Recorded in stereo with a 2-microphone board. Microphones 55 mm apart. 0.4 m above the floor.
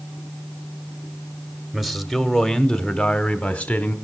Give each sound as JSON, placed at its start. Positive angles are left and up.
{"t": 1.7, "sound": "a man speaking", "side_deg": -5, "distance_m": 1.4}